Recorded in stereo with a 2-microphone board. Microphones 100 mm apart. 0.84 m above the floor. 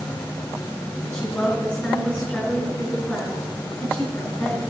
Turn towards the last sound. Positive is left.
turn(degrees=15)  # may be behind; listen again after turning